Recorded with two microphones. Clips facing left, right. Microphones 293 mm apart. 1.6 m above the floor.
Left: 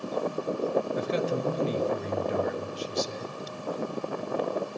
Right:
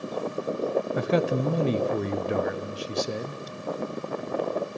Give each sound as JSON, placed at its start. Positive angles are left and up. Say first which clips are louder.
{"t": 0.9, "sound": "a man speaking", "louder": "right 4 dB", "side_deg": -70, "distance_m": 0.5}